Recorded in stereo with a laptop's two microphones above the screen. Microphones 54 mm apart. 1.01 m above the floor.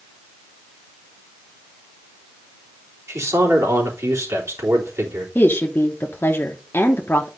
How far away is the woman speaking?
About 0.9 m.